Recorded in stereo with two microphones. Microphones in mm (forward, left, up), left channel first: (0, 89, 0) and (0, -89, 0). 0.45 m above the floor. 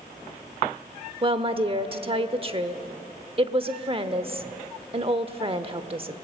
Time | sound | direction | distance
1.2 | a woman speaking | 35° right (ahead or behind) | 0.9 m